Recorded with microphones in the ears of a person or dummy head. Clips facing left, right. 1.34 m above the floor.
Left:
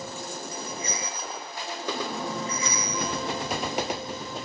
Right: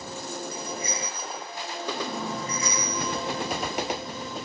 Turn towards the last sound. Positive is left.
turn(degrees=-55)  # may be behind; listen again after turning